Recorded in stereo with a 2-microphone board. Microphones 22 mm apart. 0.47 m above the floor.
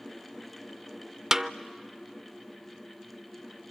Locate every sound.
1.3 s a snare drum: 20° right (ahead or behind), 0.5 m